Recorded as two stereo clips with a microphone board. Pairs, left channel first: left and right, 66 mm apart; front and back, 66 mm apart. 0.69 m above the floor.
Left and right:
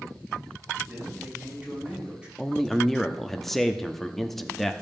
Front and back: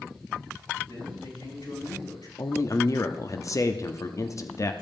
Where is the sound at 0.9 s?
20° right, 6 m; by 2.3 s 15° right, 7 m.